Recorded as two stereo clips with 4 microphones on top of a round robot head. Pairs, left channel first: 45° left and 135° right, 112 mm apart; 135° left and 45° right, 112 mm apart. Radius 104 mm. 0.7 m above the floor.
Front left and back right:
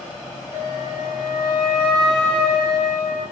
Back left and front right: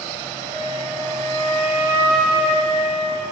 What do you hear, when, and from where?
0.5 s a flute: 90° left, 3 m